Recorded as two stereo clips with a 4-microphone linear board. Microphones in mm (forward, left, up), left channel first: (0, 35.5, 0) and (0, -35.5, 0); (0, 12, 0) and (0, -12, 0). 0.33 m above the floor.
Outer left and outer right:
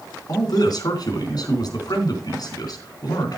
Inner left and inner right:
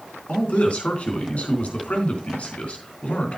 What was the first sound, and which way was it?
A man speaking, 65° left (ahead or behind).